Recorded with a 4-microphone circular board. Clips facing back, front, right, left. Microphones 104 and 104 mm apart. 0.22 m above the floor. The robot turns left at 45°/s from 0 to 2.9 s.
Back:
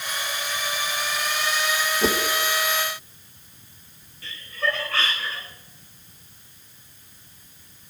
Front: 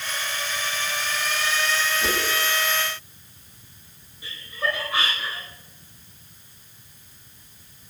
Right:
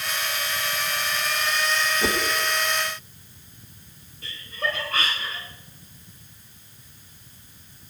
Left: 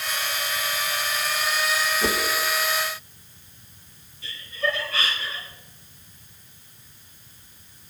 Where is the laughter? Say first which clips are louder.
Back 1 dB, left 2 dB; 70° right, 2 m.